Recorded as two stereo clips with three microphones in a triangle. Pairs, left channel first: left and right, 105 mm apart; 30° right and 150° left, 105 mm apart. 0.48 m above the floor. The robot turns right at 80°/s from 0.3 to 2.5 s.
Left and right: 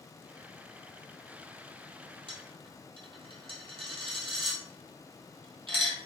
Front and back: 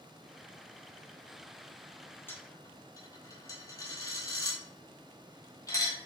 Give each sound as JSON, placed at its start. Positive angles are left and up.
{"t": 2.3, "sound": "a dropped coin", "azimuth_deg": -100, "distance_m": 0.7}